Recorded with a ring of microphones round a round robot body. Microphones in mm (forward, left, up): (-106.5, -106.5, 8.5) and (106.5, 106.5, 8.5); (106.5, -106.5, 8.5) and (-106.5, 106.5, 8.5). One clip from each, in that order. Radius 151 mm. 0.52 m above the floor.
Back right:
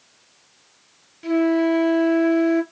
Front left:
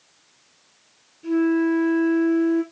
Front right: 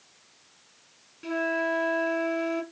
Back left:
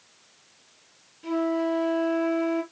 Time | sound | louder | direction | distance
1.2 | a flute | back right 2 dB, back left 1 dB | 110° right | 2 m